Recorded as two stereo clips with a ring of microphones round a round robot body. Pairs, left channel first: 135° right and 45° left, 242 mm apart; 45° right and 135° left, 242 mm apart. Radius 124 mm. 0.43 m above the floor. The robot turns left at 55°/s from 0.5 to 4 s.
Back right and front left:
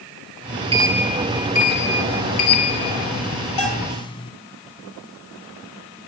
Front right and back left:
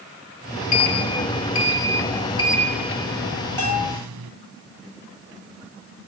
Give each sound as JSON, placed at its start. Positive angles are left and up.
{"t": 0.7, "sound": "a sliding door", "azimuth_deg": -25, "distance_m": 1.2}
{"t": 3.6, "sound": "a bell", "azimuth_deg": -125, "distance_m": 9.5}